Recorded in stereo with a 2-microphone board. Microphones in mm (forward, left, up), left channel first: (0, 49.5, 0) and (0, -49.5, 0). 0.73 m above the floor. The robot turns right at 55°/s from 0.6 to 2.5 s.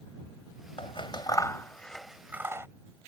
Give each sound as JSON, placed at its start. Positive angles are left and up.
{"t": 0.8, "sound": "scissors", "side_deg": 65}